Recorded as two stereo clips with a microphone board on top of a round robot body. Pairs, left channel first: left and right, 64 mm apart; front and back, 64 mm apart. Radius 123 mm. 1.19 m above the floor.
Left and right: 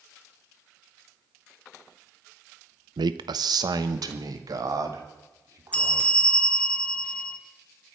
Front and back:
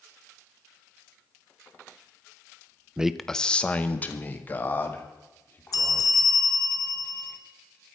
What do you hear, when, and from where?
3.0 s a man speaking: 105° right, 0.5 m; by 6.2 s 60° right, 3.5 m
5.7 s a bell: 20° left, 1.4 m